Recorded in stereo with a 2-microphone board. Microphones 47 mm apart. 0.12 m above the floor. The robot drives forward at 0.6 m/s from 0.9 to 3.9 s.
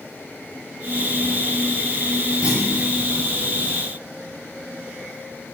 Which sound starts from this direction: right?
A clunk, at 2.4 s.